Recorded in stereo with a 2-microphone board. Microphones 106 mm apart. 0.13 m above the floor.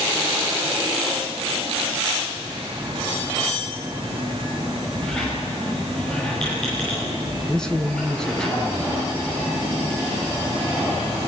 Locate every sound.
5.0 s a squeak: 5° left (ahead or behind), 9.5 m
7.5 s a man speaking: 5° left (ahead or behind), 1.3 m